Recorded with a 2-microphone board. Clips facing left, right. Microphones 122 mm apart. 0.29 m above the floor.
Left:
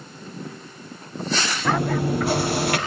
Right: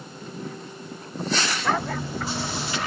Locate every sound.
1.6 s chewing: 80° left, 3.5 m